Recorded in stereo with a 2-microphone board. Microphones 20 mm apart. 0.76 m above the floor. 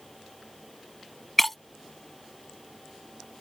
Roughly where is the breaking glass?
Centre.